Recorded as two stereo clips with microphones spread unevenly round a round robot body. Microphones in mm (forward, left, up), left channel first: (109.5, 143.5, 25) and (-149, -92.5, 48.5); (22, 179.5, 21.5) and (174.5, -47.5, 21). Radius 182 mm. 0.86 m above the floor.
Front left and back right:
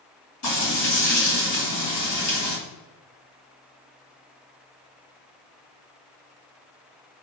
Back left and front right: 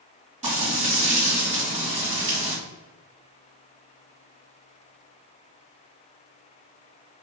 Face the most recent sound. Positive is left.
turn(degrees=10)